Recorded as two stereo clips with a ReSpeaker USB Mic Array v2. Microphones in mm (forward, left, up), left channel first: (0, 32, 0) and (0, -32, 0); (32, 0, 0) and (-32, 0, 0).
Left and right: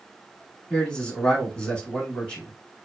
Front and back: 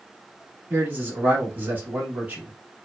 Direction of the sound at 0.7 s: 155° left.